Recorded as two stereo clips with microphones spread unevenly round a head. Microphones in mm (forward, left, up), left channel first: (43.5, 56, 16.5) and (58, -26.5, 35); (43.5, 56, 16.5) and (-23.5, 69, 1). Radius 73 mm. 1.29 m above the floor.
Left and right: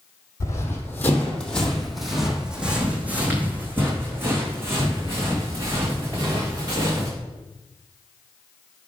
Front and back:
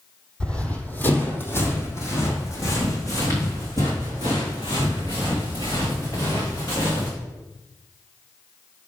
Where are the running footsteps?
45° left, 1.8 m; by 7.1 s 40° right, 5 m.